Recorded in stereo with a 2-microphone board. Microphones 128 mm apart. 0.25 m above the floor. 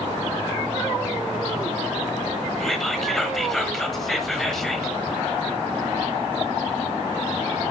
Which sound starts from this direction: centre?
Whispering, at 2.6 s.